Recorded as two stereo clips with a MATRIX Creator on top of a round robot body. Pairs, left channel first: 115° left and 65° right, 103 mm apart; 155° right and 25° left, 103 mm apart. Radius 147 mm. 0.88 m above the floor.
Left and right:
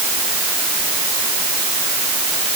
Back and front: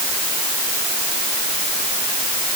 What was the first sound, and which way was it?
Only background noise.